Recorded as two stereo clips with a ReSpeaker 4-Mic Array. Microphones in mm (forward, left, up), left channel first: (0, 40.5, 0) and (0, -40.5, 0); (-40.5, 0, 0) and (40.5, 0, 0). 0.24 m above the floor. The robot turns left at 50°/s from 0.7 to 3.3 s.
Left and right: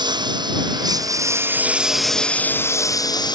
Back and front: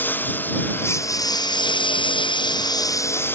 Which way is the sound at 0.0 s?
115° right.